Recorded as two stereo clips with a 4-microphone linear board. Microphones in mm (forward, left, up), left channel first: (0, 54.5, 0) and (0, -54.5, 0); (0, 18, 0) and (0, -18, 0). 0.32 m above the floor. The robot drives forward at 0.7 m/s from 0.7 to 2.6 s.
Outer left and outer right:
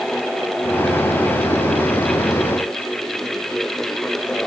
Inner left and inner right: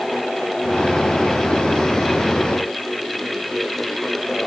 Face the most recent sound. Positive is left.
No sound to turn to.